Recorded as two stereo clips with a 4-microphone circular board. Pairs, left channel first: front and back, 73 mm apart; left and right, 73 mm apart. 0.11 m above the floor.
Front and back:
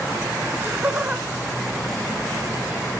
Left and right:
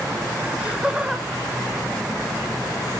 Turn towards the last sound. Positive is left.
turn(degrees=50)